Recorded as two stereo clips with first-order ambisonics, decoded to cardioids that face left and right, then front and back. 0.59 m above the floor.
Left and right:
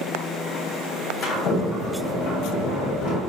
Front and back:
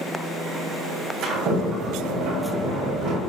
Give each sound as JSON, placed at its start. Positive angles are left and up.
{"t": 1.2, "sound": "a sliding door", "azimuth_deg": 125, "distance_m": 1.8}